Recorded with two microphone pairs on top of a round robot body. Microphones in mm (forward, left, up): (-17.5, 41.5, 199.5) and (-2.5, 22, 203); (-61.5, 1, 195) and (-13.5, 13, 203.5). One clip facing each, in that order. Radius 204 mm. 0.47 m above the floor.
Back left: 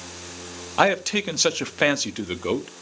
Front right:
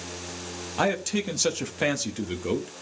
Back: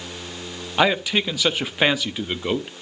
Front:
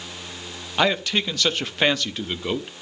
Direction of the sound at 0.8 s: 130° left.